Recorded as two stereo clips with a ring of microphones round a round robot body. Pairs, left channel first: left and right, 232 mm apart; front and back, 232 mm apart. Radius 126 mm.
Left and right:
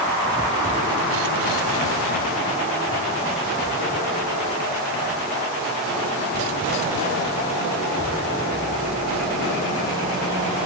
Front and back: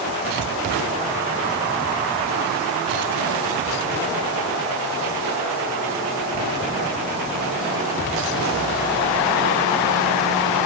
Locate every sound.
Only background noise.